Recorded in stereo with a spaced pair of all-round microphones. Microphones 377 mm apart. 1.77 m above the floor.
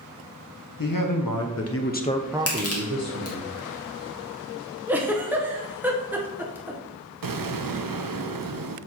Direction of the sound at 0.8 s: 65° left (ahead or behind).